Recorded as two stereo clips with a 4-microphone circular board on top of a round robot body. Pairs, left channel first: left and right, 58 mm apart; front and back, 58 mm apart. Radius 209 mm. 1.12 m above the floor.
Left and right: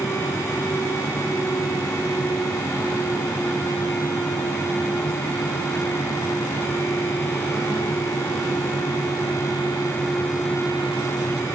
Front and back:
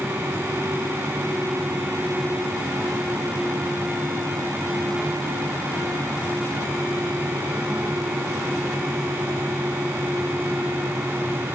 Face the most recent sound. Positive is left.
No sound to turn to.